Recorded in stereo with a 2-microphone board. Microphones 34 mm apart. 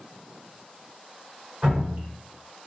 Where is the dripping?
45° right (ahead or behind), 1.7 m.